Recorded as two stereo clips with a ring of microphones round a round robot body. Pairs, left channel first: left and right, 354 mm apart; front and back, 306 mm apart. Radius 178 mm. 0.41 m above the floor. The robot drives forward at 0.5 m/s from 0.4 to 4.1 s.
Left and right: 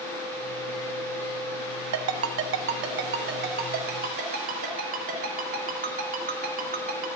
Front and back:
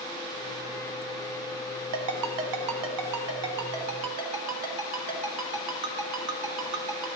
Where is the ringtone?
135° right, 1.1 m; by 7.1 s 160° right, 2 m.